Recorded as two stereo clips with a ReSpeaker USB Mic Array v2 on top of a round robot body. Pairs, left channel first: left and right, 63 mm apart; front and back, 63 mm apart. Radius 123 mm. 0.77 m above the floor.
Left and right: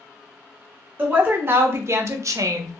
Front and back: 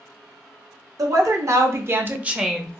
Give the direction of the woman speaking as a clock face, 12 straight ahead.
5 o'clock.